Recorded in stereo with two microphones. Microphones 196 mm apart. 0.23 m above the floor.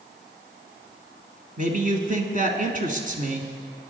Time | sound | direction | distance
1.6 | a man speaking | 45° right (ahead or behind) | 1.9 m